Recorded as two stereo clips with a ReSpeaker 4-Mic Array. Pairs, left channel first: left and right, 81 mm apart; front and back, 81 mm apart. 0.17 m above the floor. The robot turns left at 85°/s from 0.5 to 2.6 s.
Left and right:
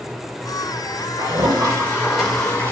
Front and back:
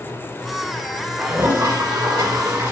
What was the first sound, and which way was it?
A toilet flushing, 90° right.